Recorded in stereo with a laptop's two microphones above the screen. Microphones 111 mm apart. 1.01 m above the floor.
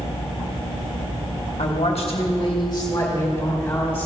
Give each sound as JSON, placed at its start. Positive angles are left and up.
{"t": 1.6, "sound": "a woman speaking", "side_deg": 65, "distance_m": 1.3}